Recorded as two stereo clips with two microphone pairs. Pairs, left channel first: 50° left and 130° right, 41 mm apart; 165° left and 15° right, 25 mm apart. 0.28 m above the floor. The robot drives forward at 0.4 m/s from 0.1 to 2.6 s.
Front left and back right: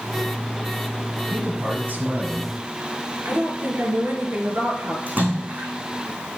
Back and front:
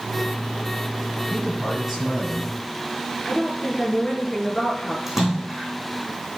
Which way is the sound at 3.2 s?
115° right.